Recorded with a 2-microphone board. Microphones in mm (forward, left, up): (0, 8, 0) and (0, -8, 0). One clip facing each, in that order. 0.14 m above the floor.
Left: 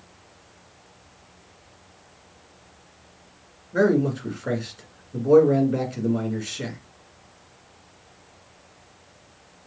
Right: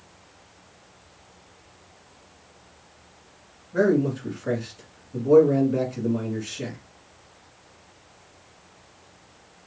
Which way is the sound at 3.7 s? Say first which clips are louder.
Left 1 dB; 20° left (ahead or behind).